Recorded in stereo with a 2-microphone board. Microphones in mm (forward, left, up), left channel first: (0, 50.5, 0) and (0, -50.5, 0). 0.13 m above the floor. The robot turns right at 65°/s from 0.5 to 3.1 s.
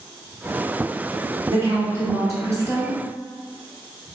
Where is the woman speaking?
135° right, 1.5 m; by 3.0 s 40° right, 1.5 m.